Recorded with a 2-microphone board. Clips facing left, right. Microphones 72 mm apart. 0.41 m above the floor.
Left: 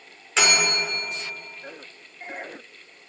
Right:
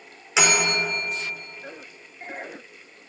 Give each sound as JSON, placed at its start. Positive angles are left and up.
{"t": 0.4, "sound": "a bell", "side_deg": -5, "distance_m": 1.0}